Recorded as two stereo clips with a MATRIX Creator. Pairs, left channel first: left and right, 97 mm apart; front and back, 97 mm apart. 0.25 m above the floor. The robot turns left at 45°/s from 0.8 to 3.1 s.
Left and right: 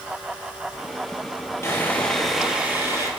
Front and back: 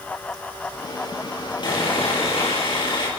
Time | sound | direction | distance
1.6 | sawing | 30° left | 5 m